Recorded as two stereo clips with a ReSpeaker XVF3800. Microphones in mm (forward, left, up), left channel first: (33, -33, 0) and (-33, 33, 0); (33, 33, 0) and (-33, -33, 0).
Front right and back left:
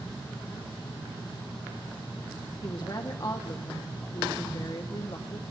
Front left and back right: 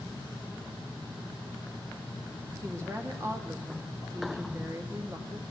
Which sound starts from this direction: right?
A woman speaking, at 2.6 s.